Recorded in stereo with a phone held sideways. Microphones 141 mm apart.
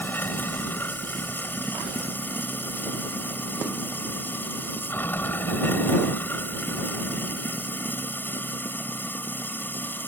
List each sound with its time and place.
0.0 s running water: 15° left (ahead or behind)